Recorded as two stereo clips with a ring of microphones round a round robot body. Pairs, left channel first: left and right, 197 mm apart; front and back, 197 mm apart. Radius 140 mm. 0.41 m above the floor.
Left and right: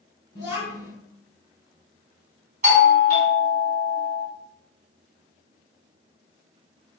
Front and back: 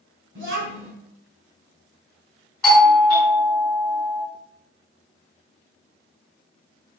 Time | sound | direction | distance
0.3 | a child speaking | 160° left | 1.4 m
2.6 | a doorbell | 85° right | 1.9 m